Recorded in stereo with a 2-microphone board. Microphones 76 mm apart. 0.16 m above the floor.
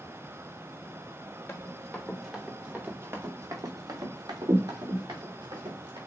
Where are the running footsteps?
20° left (ahead or behind), 2.0 m; by 6.0 s 90° right, 3.5 m.